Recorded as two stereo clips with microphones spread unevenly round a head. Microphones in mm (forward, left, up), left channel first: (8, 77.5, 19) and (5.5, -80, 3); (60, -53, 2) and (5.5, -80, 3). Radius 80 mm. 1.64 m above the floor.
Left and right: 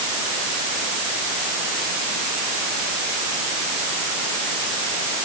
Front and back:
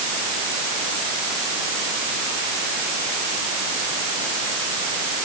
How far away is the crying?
I don't hear crying.